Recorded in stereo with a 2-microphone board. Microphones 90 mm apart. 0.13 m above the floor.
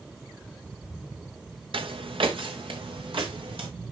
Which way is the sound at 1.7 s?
75° right (ahead or behind).